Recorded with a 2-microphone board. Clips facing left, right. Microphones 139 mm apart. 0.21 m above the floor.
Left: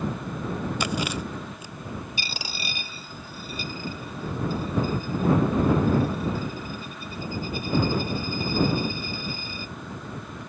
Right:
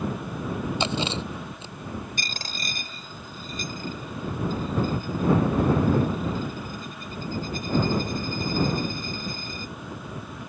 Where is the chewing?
25° right (ahead or behind).